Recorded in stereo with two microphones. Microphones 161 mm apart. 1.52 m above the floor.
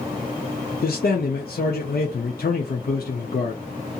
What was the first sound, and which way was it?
A man speaking, 70° left (ahead or behind).